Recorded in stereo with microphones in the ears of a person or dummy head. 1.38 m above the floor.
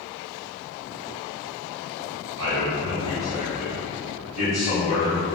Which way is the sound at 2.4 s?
75° right (ahead or behind).